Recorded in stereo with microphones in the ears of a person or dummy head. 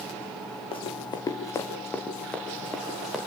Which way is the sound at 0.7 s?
35° left (ahead or behind).